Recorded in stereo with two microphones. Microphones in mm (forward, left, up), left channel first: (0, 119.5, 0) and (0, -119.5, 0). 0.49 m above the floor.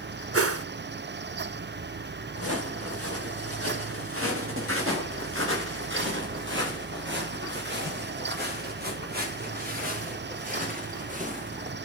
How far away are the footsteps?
About 6.5 m.